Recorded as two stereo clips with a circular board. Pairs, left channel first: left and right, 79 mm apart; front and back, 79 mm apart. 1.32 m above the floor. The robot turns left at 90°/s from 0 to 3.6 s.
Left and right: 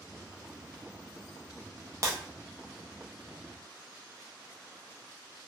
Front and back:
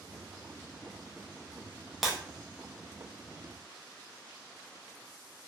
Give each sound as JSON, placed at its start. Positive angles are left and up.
{"t": 2.0, "sound": "breaking glass", "azimuth_deg": -90, "distance_m": 0.6}